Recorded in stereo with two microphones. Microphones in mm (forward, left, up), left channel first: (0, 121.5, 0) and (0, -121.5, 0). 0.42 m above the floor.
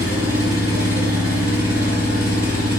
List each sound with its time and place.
0.0 s an engine running: 70° right (ahead or behind), 1.5 m